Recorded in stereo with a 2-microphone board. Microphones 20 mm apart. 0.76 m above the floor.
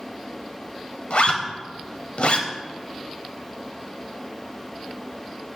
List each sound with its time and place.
1.1 s a zipper: 65° left (ahead or behind), 0.9 m